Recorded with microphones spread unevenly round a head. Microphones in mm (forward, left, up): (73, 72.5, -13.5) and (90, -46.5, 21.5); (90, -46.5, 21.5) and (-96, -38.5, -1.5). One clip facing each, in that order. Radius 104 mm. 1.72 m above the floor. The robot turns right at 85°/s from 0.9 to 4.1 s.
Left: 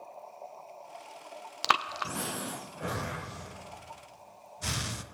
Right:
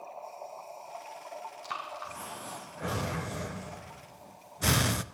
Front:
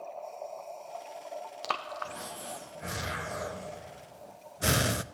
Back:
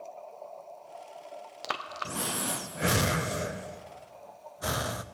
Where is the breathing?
90° left, 0.5 m; by 5.0 s 65° right, 0.5 m.